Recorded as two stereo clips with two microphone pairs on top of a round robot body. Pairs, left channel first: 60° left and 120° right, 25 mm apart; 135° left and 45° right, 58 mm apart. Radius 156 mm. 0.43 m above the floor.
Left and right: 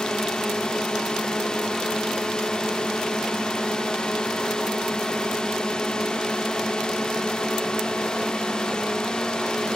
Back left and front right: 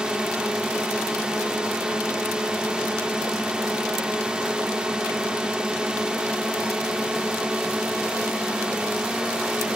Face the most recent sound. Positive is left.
turn(degrees=35)